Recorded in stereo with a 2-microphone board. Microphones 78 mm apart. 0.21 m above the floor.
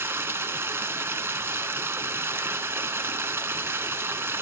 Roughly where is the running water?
Right.